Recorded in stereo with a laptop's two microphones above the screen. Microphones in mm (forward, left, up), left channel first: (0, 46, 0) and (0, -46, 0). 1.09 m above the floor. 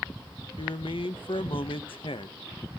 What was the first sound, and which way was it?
A man speaking, 70° left (ahead or behind).